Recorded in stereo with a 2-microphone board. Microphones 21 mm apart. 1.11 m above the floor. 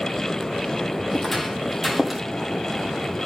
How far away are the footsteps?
About 2 m.